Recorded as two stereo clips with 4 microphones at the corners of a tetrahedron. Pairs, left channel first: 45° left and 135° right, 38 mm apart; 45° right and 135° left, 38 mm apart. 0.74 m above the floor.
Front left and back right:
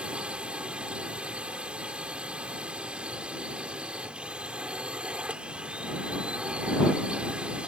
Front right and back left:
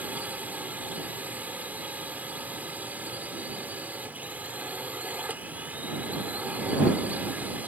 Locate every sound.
0.0 s a drone: 170° left